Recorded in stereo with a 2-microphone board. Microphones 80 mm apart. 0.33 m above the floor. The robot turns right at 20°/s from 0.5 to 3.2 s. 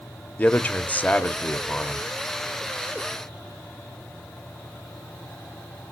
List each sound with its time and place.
0.4 s a man speaking: 20° left (ahead or behind), 0.9 m; by 2.0 s 15° left (ahead or behind), 0.9 m